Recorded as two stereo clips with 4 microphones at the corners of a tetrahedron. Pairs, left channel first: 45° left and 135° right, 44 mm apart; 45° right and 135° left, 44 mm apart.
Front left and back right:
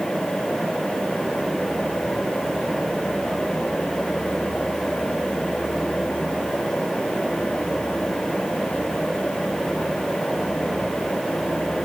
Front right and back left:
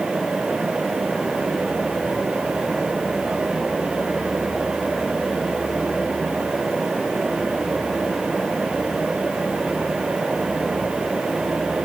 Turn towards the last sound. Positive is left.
No sound to turn to.